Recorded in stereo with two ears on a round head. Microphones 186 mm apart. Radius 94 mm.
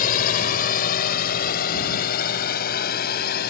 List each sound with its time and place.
0.0 s a drone: 40° left (ahead or behind); by 3.5 s 45° left (ahead or behind)